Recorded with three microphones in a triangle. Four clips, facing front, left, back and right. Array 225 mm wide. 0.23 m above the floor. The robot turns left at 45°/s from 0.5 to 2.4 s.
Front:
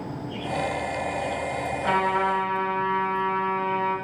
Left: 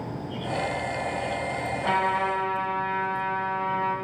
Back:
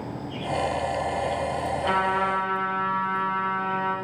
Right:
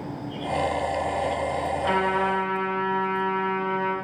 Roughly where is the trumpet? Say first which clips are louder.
Even, front 2 dB; ahead left.